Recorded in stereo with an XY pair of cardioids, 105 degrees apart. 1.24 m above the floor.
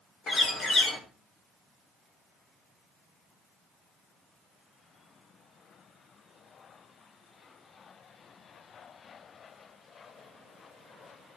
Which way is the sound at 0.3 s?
65° left.